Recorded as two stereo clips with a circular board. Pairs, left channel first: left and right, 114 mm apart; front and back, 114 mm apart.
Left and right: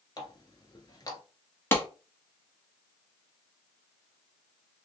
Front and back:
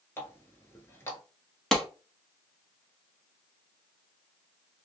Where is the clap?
80° left, 0.9 m.